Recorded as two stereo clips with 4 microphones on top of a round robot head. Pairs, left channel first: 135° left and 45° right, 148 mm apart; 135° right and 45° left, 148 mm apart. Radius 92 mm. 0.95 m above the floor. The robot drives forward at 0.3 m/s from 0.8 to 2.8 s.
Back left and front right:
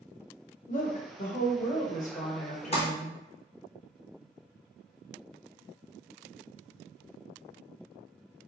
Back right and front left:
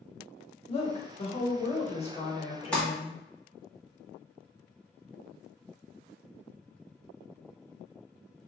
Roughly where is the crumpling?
Behind left.